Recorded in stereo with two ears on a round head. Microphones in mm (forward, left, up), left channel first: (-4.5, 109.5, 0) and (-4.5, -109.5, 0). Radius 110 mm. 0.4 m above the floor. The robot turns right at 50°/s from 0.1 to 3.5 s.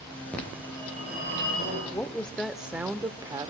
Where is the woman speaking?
10° left (ahead or behind), 0.9 m; by 3.5 s 15° right (ahead or behind), 0.9 m.